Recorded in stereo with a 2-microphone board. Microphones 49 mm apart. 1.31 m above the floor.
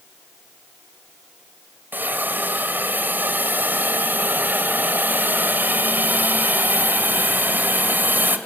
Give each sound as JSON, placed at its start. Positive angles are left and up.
{"t": 1.9, "sound": "a hiss", "side_deg": -40, "distance_m": 1.7}